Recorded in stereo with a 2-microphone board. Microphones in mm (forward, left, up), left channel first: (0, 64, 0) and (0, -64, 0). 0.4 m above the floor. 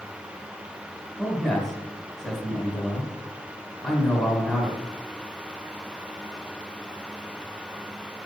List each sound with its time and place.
1.2 s a man speaking: 5° left (ahead or behind), 2.0 m